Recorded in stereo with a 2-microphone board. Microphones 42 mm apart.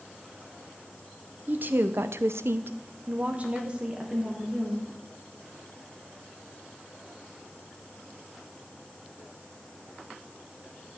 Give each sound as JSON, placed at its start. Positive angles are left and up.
{"t": 1.5, "sound": "a woman speaking", "side_deg": -45, "distance_m": 0.7}